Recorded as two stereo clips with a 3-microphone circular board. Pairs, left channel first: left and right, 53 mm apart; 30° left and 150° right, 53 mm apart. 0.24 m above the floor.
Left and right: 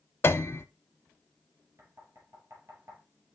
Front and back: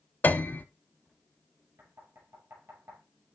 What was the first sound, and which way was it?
A piano, 70° left.